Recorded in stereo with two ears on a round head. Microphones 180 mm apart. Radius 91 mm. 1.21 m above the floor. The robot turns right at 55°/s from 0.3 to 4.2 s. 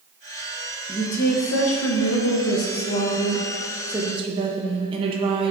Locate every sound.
0.9 s a woman speaking: 25° left, 0.9 m; by 5.5 s 155° right, 0.9 m